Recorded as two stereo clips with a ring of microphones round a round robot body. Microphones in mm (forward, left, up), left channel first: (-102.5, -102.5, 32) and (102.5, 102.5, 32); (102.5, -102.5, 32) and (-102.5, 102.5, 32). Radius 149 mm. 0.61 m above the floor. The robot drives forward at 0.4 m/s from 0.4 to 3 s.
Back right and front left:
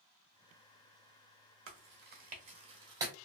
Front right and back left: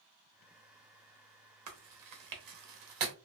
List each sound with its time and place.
1.7 s chewing: 95° left, 0.9 m; by 3.1 s 125° left, 1.1 m